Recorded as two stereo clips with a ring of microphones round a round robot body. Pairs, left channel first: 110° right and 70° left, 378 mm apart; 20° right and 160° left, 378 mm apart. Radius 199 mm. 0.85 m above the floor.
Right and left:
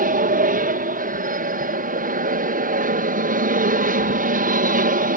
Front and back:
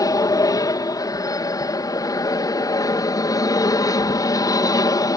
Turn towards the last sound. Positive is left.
turn(degrees=45)